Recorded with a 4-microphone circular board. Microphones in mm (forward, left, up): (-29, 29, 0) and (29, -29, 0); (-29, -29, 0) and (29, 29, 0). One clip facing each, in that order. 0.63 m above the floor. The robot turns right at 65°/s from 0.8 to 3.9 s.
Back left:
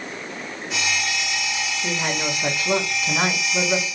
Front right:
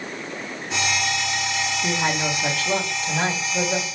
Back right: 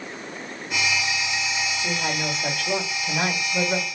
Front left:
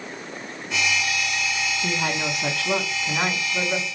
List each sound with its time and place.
1.8 s a woman speaking: 10° left, 1.5 m; by 3.9 s 140° left, 1.5 m